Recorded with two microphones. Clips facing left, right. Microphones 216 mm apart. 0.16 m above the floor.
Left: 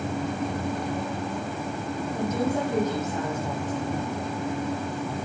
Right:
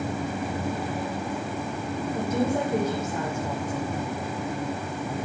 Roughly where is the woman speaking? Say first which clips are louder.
Right 1 dB; centre.